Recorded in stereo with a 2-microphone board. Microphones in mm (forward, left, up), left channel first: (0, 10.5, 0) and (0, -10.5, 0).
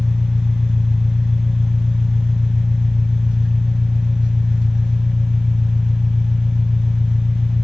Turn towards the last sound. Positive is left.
turn(degrees=-45)  # may be behind; listen again after turning